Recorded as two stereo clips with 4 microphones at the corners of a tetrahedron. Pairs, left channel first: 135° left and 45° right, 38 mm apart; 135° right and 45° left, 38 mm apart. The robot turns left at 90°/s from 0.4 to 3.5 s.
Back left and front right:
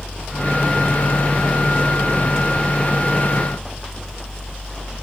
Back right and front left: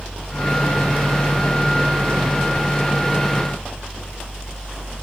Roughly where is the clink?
No clink in this recording.